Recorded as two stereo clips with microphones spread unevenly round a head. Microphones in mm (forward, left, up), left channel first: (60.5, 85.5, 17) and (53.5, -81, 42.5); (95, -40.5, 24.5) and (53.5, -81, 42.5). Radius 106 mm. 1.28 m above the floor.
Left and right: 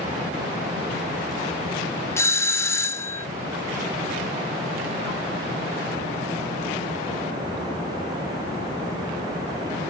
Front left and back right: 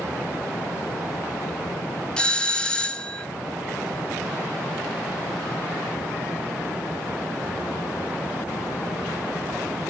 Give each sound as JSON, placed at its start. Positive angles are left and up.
{"t": 2.2, "sound": "a doorbell", "azimuth_deg": 45, "distance_m": 0.8}